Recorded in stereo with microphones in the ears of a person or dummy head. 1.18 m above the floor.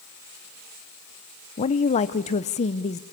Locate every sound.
1.6 s a woman speaking: 30° left (ahead or behind), 0.7 m